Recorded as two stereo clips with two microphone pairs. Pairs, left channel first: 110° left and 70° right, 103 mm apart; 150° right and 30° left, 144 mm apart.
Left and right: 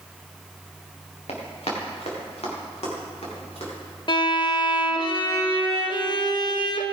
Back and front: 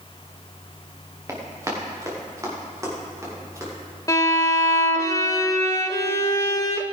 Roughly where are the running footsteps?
Left.